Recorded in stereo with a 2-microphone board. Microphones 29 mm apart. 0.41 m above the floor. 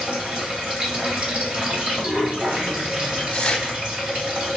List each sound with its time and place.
0.0 s running water: 35° right (ahead or behind), 1.6 m
3.3 s tearing paper: 30° left (ahead or behind), 0.7 m